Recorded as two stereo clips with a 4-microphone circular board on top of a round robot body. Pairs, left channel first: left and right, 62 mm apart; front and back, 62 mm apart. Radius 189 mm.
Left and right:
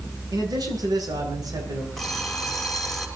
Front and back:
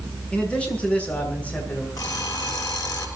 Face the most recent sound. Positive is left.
turn(degrees=5)